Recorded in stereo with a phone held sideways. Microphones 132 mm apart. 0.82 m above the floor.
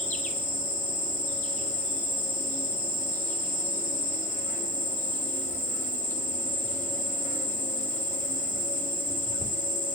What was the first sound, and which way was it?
An insect, 75° left (ahead or behind).